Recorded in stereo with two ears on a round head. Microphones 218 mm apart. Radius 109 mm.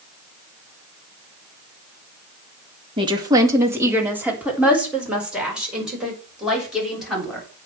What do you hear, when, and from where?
3.0 s a woman speaking: 20° right (ahead or behind), 1.7 m; by 7.5 s centre (ahead or behind), 8 m